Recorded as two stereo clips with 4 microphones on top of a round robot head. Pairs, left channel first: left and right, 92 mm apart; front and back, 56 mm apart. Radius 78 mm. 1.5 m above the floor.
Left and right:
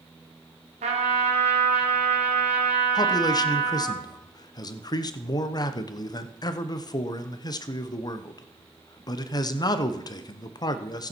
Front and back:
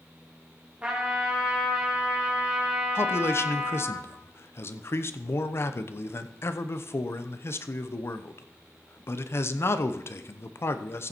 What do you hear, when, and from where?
0.8 s a trumpet: 105° right, 2.5 m
3.0 s a man speaking: 45° left, 0.9 m